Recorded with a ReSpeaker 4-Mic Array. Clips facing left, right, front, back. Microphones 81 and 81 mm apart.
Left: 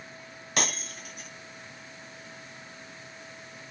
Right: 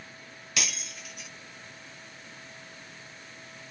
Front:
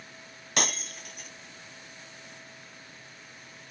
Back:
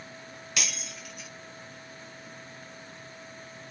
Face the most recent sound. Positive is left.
turn(degrees=45)